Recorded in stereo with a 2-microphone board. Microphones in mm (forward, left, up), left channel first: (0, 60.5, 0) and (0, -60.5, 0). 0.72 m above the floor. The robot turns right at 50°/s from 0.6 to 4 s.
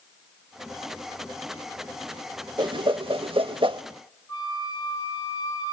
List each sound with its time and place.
2.6 s a whoosh: 40° right (ahead or behind), 0.6 m
4.3 s a flute: 35° left (ahead or behind), 7.5 m